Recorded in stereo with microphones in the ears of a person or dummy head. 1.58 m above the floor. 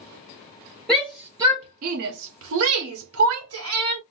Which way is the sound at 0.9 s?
5° left (ahead or behind).